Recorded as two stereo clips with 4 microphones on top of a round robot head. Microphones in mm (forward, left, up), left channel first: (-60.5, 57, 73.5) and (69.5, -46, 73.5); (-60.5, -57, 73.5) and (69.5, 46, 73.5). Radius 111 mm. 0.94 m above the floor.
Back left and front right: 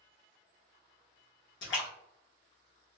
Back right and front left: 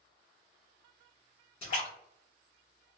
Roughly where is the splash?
Behind left.